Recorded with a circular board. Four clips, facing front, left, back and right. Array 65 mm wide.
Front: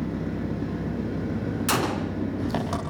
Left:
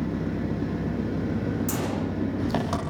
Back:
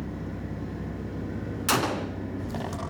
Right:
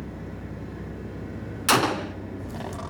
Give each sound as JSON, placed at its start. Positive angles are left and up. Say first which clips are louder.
{"t": 0.0, "sound": "an engine running", "louder": "left 9 dB, front 6 dB", "azimuth_deg": 55, "distance_m": 6.0}
{"t": 1.7, "sound": "a gunshot", "louder": "right 5 dB, back 1 dB", "azimuth_deg": -90, "distance_m": 1.8}